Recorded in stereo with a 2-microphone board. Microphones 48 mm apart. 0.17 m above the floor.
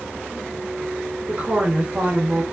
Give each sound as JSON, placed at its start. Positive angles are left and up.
{"t": 1.3, "sound": "a woman speaking", "side_deg": -30, "distance_m": 1.1}